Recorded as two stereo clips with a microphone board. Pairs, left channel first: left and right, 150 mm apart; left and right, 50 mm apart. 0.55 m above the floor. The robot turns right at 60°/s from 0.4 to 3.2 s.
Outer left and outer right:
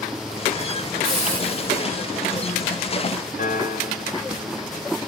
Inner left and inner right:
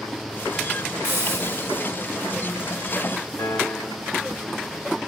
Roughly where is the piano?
Left.